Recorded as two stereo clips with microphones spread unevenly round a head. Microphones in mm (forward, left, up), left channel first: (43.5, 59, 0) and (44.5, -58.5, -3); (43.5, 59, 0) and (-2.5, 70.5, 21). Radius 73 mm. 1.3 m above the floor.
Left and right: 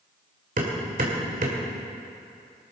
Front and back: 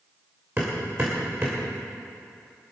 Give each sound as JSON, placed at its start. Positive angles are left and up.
{"t": 0.6, "sound": "hammering", "azimuth_deg": -125, "distance_m": 2.5}